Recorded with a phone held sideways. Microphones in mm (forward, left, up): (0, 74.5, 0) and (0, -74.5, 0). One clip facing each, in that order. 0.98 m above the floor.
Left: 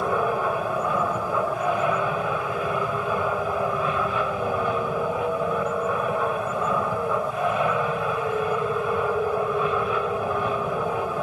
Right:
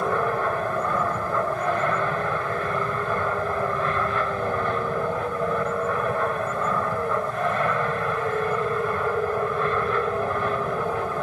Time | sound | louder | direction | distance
0.0 | an aircraft | even | 10° left (ahead or behind) | ?